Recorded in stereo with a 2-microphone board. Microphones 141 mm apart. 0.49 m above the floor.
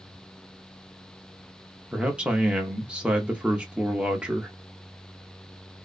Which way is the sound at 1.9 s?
10° right (ahead or behind).